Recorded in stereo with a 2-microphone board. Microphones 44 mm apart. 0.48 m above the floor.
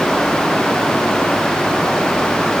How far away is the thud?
No thud in this recording.